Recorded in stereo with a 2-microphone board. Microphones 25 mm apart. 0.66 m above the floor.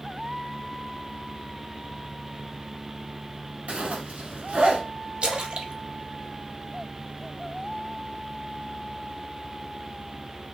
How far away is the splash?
About 0.7 m.